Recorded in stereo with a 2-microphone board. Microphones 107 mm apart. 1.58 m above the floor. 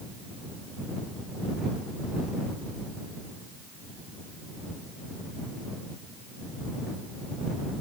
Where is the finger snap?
I don't hear a finger snap.